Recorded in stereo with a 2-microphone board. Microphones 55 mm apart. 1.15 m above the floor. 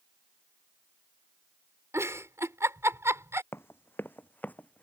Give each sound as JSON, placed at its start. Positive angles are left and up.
{"t": 1.9, "sound": "a giggle", "side_deg": -55}
{"t": 3.5, "sound": "running footsteps", "side_deg": 50}